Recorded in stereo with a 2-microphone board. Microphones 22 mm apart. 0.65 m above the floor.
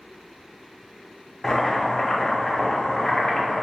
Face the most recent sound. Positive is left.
turn(degrees=30)  # may be behind; listen again after turning